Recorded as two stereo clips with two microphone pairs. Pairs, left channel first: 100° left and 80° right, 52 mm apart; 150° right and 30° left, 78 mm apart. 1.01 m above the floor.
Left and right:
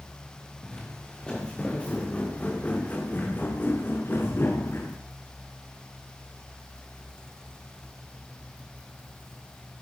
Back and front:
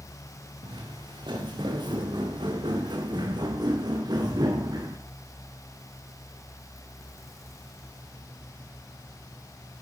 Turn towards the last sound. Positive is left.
turn(degrees=65)